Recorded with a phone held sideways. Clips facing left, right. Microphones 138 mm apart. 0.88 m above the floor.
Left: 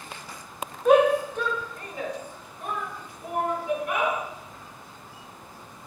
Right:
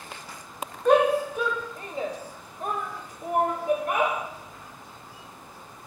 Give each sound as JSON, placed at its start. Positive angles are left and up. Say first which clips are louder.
{"t": 0.8, "sound": "a shout", "louder": "left 1 dB", "side_deg": 5, "distance_m": 0.9}